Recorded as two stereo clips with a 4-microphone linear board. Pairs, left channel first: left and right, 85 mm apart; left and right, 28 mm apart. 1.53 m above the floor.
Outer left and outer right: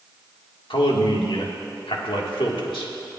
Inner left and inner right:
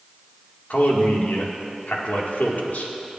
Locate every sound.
0.7 s a man speaking: 85° left, 1.8 m